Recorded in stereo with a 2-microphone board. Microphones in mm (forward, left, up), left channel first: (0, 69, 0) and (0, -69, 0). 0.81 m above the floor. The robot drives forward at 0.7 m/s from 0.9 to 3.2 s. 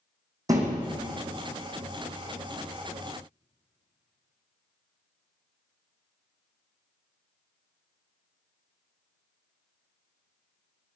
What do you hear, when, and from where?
0.5 s a thud: 25° right (ahead or behind), 2.5 m